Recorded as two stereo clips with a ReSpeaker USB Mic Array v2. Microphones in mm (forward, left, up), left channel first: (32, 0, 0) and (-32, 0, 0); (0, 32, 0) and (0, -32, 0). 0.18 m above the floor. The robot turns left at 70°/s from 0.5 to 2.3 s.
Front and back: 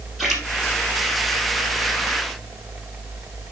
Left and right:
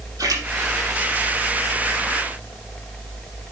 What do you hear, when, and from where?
0.2 s a splash: 90° right, 4 m